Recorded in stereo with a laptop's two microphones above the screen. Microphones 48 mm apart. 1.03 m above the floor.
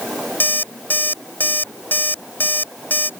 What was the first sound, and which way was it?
An alarm clock, 45° left (ahead or behind).